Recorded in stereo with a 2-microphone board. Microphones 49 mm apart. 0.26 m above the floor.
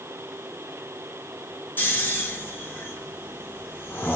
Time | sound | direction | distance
1.8 | snoring | 35° left (ahead or behind) | 4 m